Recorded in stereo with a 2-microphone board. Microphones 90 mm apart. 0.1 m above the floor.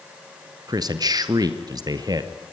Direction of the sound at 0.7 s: 40° right (ahead or behind).